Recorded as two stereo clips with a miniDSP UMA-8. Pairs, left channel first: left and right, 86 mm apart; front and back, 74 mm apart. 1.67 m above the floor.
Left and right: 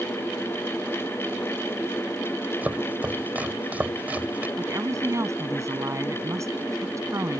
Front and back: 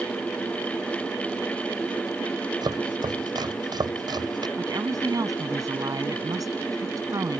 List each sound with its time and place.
2.6 s chopping: 160° right
4.6 s a woman speaking: 145° right